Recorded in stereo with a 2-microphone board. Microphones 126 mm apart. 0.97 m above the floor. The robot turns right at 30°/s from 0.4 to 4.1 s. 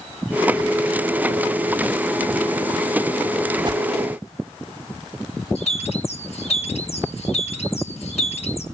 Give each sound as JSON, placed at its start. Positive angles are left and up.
{"t": 3.6, "sound": "a whoosh", "side_deg": -40, "distance_m": 1.0}
{"t": 5.5, "sound": "a bird", "side_deg": 55, "distance_m": 1.7}